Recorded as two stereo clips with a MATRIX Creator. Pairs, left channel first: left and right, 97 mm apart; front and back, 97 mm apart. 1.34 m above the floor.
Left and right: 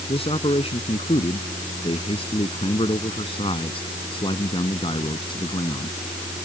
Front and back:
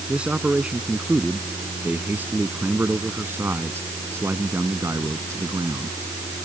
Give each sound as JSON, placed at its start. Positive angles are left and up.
{"t": 0.1, "sound": "a man speaking", "azimuth_deg": 100}